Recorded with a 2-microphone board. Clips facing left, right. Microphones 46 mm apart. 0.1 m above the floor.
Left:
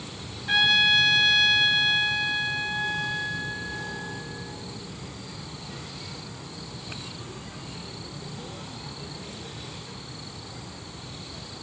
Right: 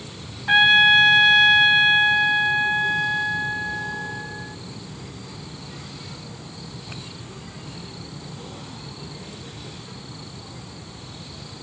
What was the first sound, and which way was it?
A trumpet, 30° right (ahead or behind).